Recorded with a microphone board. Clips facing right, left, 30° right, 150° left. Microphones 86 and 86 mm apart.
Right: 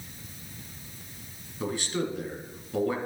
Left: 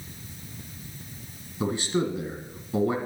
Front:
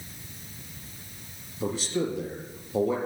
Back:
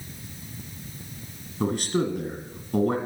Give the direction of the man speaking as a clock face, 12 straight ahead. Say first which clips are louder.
Left 4 dB, back 3 dB; 7 o'clock.